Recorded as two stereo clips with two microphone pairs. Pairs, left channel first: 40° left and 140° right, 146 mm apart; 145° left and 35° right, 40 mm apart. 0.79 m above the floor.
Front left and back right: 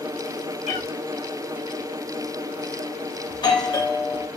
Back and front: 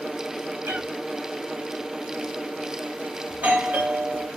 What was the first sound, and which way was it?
A cat meowing, 5° left.